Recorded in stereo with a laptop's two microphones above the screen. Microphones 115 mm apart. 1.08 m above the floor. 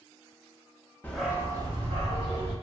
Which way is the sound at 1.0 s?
15° left (ahead or behind).